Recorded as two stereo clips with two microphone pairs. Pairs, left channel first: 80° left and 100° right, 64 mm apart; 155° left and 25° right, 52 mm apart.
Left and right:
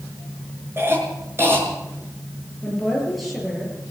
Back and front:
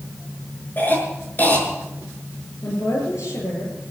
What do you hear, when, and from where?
0.8 s a cough: 155° right, 6 m
2.6 s a woman speaking: 170° left, 8.5 m